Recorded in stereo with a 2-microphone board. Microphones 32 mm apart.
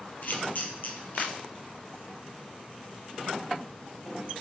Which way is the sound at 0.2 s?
60° left (ahead or behind).